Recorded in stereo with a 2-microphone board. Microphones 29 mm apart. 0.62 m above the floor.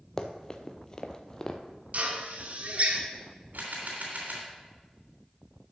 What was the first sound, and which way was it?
Running footsteps, 20° left (ahead or behind).